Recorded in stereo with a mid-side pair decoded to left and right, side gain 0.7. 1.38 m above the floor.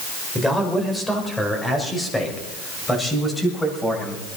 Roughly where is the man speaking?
Ahead.